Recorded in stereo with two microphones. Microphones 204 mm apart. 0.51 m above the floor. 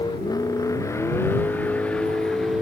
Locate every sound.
0.0 s a vehicle: 20° left (ahead or behind); by 2.6 s centre (ahead or behind)